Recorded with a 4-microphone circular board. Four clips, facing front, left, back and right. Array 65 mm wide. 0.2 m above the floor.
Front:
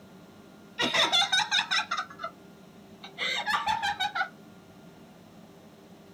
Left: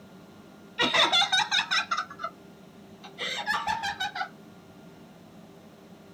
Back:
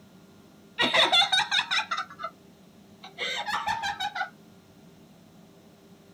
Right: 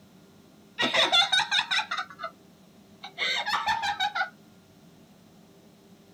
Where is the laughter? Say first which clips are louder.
Even, back 3 dB; 165° left, 1.6 m; by 4.3 s 70° right, 2.5 m.